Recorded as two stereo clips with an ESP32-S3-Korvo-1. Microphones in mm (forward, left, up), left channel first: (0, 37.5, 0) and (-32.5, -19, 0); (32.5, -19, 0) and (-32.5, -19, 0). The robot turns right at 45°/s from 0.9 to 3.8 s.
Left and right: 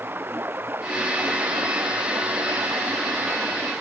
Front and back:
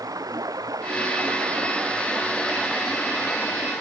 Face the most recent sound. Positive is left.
turn(degrees=-45)